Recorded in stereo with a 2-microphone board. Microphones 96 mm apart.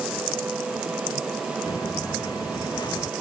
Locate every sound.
1.7 s footsteps: 40° left (ahead or behind); by 3.1 s 45° left (ahead or behind)